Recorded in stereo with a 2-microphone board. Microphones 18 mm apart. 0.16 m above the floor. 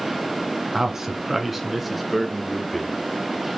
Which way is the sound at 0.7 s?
25° right (ahead or behind).